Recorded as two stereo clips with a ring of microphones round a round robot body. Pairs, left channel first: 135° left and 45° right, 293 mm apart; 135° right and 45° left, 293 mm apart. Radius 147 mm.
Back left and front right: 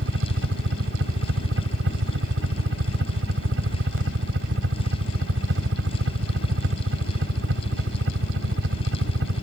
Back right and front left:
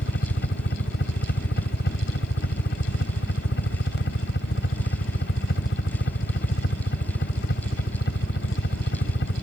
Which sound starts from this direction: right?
A helicopter, at 0.0 s.